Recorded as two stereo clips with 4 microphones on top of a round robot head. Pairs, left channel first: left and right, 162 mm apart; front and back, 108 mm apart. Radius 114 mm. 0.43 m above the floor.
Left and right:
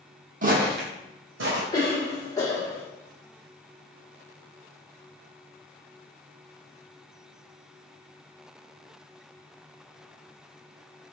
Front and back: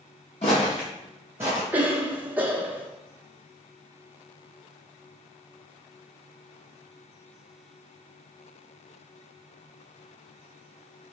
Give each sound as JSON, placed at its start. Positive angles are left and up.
{"t": 0.4, "sound": "footsteps", "azimuth_deg": -55, "distance_m": 1.3}
{"t": 1.7, "sound": "a cough", "azimuth_deg": 130, "distance_m": 1.1}